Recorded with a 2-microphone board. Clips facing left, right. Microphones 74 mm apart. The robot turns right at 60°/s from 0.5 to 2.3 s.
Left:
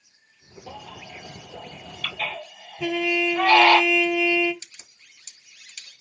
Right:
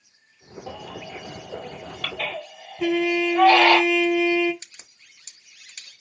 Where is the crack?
40° right (ahead or behind), 1.4 m.